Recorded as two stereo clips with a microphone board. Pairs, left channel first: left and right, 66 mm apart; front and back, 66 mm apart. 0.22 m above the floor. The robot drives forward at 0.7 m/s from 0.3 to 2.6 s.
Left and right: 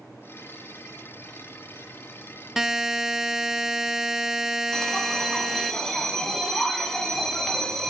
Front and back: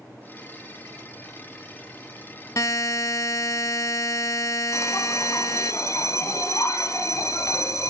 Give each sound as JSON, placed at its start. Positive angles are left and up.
{"t": 2.6, "sound": "a buzzer", "azimuth_deg": -10, "distance_m": 0.6}
{"t": 4.7, "sound": "a bell", "azimuth_deg": 10, "distance_m": 1.6}